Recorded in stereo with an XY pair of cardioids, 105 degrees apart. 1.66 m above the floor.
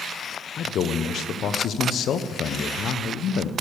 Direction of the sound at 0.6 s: 60° left.